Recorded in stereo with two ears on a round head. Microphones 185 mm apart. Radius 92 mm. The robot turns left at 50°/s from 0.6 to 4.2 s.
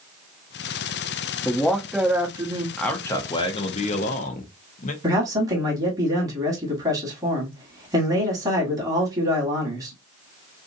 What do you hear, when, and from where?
1.4 s a man speaking: 20° left, 0.7 m; by 2.7 s 45° right, 0.7 m
2.8 s a man speaking: 175° left, 0.7 m; by 4.9 s 105° left, 0.7 m
5.0 s a man speaking: 15° right (ahead or behind), 1.4 m